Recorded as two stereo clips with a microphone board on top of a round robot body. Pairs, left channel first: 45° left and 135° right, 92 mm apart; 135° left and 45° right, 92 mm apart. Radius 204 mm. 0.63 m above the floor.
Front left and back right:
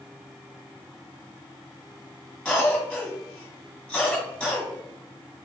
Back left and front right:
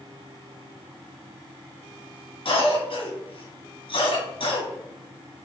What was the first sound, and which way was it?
A cough, 130° left.